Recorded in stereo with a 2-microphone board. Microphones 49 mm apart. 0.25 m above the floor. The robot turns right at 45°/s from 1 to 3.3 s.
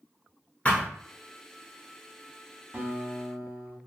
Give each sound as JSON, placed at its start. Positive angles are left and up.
{"t": 0.7, "sound": "a thud", "side_deg": 30, "distance_m": 1.0}
{"t": 2.7, "sound": "a guitar", "side_deg": -40, "distance_m": 0.9}